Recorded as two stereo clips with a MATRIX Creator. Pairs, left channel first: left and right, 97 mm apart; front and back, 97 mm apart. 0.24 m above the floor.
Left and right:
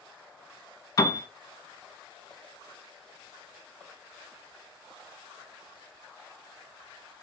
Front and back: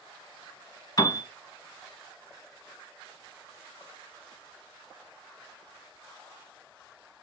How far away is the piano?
About 1.1 m.